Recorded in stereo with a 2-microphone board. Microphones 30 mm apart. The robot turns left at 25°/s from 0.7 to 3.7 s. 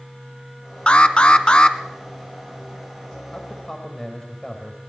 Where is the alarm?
40° left (ahead or behind), 1.4 m; by 1.8 s 35° left (ahead or behind), 1.4 m.